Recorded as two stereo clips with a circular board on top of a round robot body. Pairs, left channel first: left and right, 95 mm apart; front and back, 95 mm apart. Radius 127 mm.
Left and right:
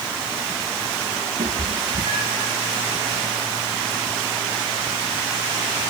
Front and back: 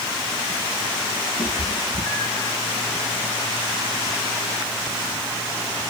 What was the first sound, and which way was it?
A cat meowing, 60° right.